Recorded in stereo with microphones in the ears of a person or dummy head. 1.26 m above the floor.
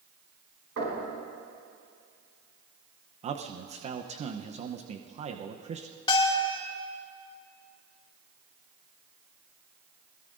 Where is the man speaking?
30° right (ahead or behind), 0.8 m.